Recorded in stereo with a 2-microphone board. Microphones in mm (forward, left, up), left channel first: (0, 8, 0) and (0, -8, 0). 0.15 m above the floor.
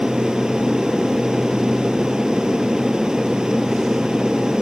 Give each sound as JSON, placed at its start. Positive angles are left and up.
{"t": 0.0, "sound": "an aircraft", "side_deg": -65}